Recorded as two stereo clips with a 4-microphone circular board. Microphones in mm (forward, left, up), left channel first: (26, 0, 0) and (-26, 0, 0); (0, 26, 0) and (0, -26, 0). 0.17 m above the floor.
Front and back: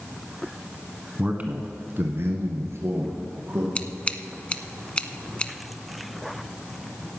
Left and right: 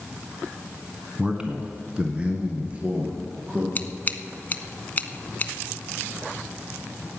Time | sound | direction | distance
1.2 | a man speaking | 140° right | 1.1 m
3.8 | scissors | 55° left | 0.7 m